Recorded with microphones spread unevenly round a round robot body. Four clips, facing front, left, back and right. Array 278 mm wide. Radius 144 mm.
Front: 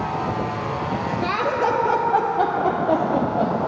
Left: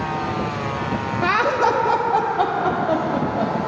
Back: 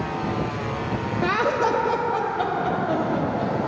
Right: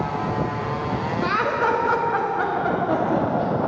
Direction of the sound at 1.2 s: 175° left.